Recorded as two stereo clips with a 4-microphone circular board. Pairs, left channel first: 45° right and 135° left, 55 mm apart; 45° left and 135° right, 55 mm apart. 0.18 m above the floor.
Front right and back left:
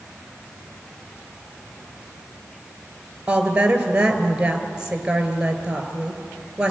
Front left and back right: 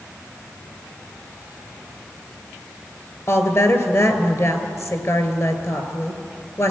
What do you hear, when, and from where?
3.3 s a woman speaking: 65° left, 3 m